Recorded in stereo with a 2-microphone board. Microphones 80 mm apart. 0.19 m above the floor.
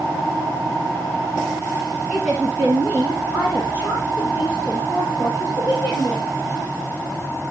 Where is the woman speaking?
Centre (ahead or behind), 1.9 m; by 6.3 s 40° left (ahead or behind), 5 m.